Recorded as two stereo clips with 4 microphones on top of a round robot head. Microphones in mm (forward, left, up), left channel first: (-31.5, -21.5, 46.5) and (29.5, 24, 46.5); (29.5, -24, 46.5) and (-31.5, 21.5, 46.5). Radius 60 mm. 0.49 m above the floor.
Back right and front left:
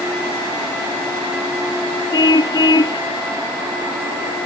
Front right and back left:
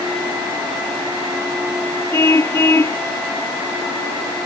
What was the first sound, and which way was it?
A car horn, 100° right.